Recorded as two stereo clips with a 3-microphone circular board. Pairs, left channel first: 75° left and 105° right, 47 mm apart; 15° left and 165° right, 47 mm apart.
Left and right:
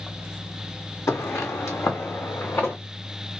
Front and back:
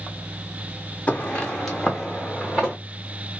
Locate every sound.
1.1 s footsteps: 75° left, 1.2 m; by 2.8 s 115° left, 2 m